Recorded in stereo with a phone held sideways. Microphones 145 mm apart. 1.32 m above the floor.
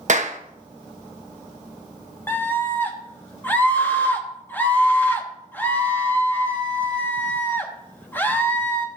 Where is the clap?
60° right (ahead or behind), 1.1 m.